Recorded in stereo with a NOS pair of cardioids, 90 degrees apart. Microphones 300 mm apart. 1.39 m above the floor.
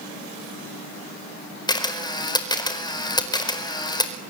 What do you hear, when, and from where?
1.7 s a camera shutter: 15° left, 4.5 m